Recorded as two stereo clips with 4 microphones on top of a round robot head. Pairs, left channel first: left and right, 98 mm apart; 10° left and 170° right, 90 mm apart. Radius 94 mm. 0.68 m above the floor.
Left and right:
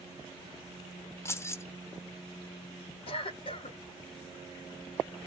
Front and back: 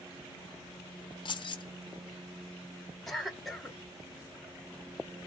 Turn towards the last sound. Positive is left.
turn(degrees=100)